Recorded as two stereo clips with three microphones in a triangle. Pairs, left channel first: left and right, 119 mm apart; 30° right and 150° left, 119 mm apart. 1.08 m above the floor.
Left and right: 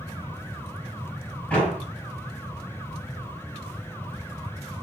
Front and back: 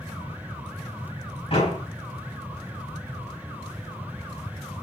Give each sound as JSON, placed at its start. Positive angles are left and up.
{"t": 1.5, "sound": "a door slam", "azimuth_deg": 15, "distance_m": 4.0}